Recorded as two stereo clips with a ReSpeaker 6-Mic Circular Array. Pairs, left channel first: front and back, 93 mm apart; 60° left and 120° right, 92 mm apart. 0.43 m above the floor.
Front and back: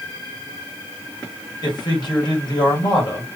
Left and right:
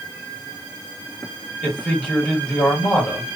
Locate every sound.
1.6 s a man speaking: 15° right, 2.5 m